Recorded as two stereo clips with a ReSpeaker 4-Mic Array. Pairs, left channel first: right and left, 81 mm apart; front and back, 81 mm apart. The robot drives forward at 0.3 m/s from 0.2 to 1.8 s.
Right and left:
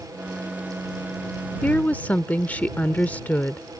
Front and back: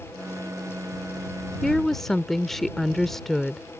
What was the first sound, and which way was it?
A woman speaking, 65° right.